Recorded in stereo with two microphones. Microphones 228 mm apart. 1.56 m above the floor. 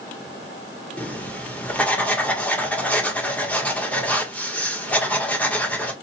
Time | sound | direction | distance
1.0 | writing | 5° left (ahead or behind) | 0.8 m